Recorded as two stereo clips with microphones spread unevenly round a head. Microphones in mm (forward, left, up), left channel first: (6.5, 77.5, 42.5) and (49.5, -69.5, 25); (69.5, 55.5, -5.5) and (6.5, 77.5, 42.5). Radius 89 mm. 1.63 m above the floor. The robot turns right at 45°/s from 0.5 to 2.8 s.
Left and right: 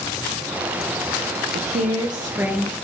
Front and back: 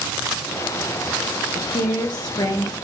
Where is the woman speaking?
35° right, 1.7 m; by 2.8 s 25° left, 1.7 m.